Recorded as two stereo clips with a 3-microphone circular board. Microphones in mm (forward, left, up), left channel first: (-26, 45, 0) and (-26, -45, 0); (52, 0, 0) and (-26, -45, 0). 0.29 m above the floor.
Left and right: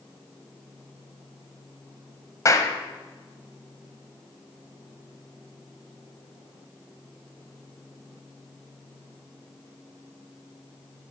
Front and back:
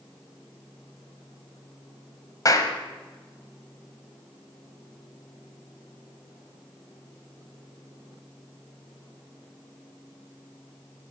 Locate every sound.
2.5 s a clap: 55° left, 1.4 m